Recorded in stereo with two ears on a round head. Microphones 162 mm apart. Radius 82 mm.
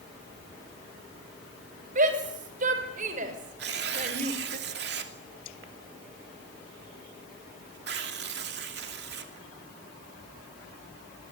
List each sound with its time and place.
1.9 s a shout: 50° right (ahead or behind), 6.5 m
3.6 s tearing paper: 60° right (ahead or behind), 2.5 m